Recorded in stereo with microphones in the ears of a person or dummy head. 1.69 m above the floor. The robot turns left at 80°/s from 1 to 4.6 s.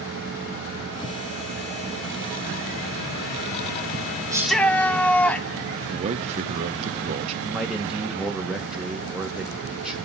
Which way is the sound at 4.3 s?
15° right (ahead or behind).